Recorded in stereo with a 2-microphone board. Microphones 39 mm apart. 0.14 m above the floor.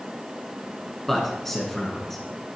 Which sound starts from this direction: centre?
A man speaking, at 1.1 s.